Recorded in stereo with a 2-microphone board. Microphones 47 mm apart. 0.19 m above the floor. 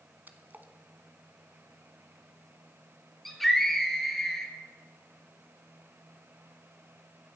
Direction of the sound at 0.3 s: 45° right (ahead or behind).